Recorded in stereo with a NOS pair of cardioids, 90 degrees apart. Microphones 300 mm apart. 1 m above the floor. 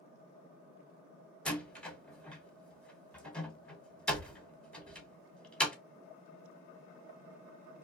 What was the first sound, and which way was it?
A door slam, 5° left.